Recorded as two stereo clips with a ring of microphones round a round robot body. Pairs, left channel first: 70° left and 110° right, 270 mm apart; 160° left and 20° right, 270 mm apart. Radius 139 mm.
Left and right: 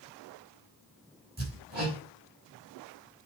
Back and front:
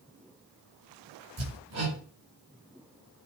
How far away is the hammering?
About 5 m.